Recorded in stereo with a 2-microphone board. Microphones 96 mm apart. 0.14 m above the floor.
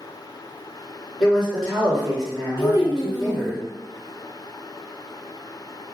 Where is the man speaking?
Centre (ahead or behind), 1.7 m.